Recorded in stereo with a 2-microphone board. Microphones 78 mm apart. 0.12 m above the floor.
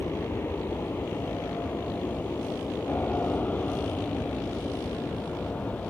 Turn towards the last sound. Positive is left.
turn(degrees=15)  # may be behind; listen again after turning